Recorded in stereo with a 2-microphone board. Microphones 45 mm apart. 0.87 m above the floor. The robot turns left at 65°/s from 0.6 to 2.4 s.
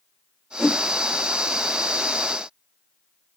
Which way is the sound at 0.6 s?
10° left (ahead or behind).